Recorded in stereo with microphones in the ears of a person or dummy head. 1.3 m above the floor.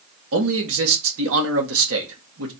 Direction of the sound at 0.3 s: 75° right (ahead or behind).